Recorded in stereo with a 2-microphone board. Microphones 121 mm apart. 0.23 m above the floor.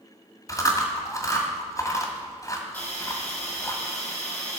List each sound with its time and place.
0.5 s chewing: 30° left (ahead or behind), 1.8 m
2.7 s a hiss: 15° left (ahead or behind), 3.5 m